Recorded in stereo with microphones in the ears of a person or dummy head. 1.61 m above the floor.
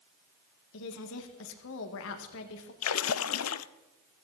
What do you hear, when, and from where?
0.7 s a woman speaking: 75° left (ahead or behind), 2.0 m
2.8 s a splash: 75° left (ahead or behind), 0.6 m